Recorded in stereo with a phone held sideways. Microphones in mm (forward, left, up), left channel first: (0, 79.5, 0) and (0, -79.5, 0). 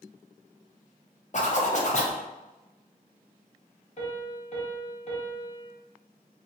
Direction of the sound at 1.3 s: 50° left (ahead or behind).